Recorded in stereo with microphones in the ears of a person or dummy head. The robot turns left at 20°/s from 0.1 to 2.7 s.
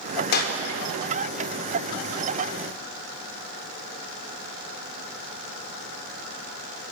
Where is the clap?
55° left (ahead or behind), 3.5 m; by 0.6 s 50° left (ahead or behind), 3.5 m.